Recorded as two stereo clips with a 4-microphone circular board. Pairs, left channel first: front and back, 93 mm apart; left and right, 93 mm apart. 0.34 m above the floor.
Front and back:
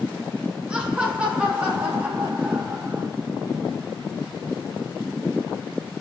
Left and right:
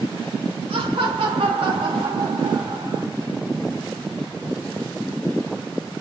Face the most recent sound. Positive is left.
turn(degrees=-125)